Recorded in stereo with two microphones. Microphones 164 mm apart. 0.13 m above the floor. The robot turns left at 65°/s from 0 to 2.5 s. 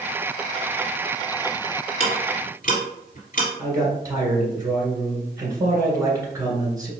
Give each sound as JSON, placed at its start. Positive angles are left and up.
{"t": 2.0, "sound": "ticking", "side_deg": 35, "distance_m": 1.9}
{"t": 3.6, "sound": "a man speaking", "side_deg": -20, "distance_m": 1.7}